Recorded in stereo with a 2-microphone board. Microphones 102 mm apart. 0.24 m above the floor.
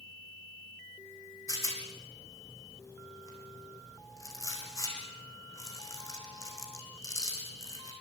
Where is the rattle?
30° left (ahead or behind), 5.5 m.